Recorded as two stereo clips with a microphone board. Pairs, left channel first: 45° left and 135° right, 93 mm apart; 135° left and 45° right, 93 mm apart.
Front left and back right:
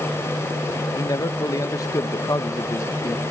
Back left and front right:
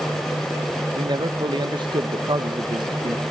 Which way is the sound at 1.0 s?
5° right.